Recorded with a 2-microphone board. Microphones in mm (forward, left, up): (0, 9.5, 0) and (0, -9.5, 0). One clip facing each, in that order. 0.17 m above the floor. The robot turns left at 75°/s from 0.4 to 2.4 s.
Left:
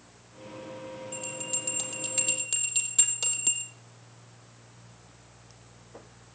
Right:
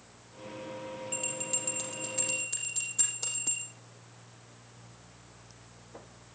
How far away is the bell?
About 4.5 m.